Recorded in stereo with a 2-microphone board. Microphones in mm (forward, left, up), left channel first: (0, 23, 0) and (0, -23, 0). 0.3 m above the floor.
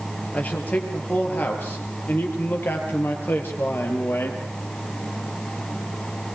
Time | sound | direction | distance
0.3 | a man speaking | 35° left (ahead or behind) | 6.5 m